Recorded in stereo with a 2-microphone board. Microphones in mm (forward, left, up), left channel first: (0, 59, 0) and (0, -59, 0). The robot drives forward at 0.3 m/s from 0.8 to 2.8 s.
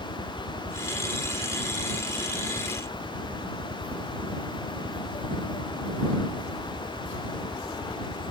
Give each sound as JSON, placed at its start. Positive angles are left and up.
{"t": 0.0, "sound": "a helicopter", "side_deg": -60}